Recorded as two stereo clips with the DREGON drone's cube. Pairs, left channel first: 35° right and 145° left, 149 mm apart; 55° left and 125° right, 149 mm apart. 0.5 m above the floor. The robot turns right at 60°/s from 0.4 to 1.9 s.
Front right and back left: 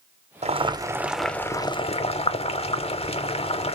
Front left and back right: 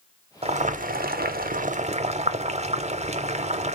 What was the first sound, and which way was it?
Boiling, 170° right.